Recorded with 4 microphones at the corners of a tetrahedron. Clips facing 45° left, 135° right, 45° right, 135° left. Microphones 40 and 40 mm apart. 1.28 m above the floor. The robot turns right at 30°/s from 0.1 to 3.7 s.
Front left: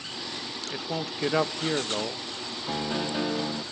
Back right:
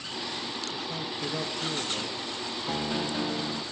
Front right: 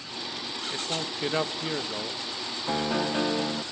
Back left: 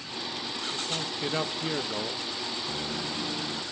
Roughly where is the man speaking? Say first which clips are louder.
Front left 2 dB, front right 3 dB; ahead.